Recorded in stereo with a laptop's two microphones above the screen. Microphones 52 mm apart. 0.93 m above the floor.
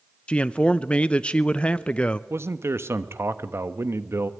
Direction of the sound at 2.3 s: 55° right (ahead or behind).